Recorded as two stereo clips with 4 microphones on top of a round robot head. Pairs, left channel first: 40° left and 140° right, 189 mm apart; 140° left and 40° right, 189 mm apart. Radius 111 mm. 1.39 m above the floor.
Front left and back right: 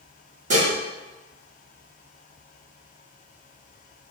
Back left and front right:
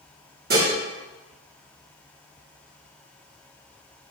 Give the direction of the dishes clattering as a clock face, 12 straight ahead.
3 o'clock.